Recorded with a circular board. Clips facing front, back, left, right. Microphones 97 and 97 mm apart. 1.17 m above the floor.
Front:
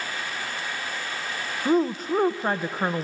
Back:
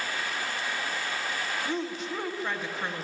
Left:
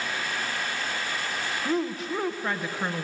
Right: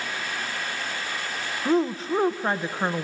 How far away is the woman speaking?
About 0.8 m.